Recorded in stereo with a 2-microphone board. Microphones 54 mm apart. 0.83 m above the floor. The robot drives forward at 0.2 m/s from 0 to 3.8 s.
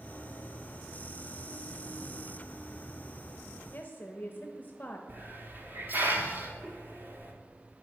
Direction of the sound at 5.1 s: 35° right (ahead or behind).